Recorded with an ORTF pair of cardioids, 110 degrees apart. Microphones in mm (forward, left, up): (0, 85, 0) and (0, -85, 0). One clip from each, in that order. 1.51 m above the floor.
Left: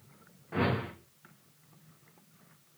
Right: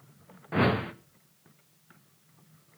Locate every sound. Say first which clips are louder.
0.5 s a whoosh: right 5 dB; 40° right, 1.6 m